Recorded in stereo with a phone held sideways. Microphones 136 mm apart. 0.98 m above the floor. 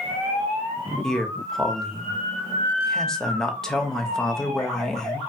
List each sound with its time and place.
1.0 s a man speaking: 5° left (ahead or behind), 0.8 m